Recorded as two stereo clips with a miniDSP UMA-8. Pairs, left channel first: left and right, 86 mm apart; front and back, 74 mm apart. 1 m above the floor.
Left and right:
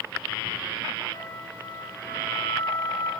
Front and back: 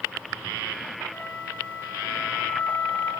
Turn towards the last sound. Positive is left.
turn(degrees=70)